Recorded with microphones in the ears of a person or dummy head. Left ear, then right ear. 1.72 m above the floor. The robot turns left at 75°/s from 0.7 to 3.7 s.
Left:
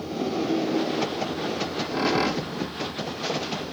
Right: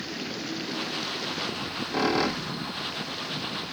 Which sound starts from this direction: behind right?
A squeak, at 1.6 s.